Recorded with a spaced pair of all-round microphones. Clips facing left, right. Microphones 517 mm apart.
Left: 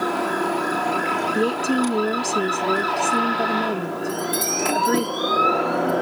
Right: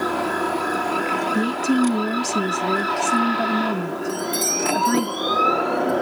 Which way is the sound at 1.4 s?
25° right (ahead or behind).